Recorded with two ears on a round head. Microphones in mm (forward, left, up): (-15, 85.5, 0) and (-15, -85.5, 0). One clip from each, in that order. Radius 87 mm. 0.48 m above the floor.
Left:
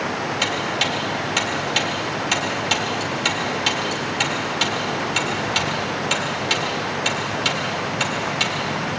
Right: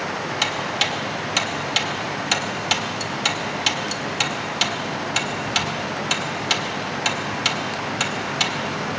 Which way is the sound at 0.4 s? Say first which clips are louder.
Even; 25° right (ahead or behind).